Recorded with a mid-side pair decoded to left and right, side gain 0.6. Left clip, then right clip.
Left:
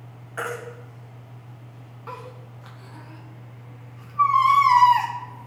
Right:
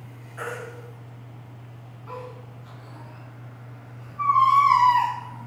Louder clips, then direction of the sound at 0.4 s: Left 3 dB; 60° left.